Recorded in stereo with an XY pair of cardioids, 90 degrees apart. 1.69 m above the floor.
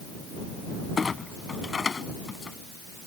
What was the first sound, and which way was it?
A clunk, 40° left.